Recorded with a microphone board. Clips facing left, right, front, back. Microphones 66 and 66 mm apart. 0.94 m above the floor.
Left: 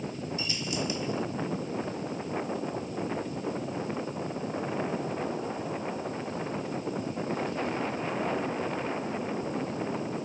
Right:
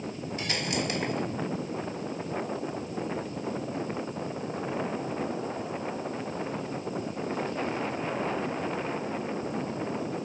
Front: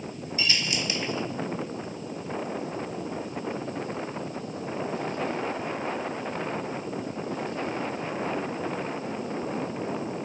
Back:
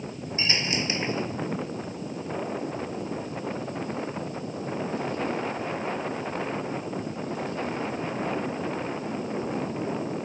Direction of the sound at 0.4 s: 120° right.